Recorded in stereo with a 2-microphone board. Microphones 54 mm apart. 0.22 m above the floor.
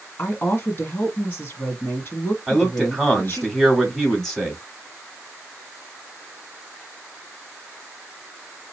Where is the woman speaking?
45° left (ahead or behind), 1.5 m.